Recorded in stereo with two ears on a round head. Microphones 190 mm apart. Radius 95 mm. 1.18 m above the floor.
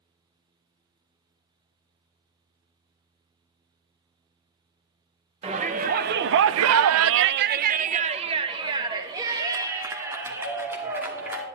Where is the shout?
30° right (ahead or behind), 0.9 m; by 11.4 s 10° right (ahead or behind), 3 m.